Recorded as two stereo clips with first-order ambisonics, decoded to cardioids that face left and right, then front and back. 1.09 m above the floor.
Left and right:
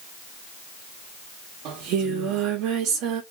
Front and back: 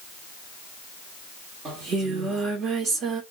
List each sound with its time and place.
1.6 s singing: 120° right, 1.1 m